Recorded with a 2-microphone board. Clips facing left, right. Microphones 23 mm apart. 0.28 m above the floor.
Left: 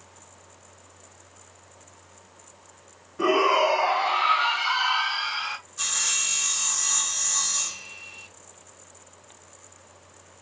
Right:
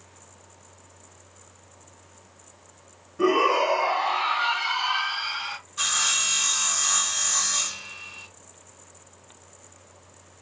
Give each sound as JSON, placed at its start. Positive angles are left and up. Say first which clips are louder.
{"t": 3.2, "sound": "a shout", "louder": "even", "side_deg": 20, "distance_m": 1.6}
{"t": 5.8, "sound": "sawing", "louder": "right 4 dB", "side_deg": -30, "distance_m": 1.6}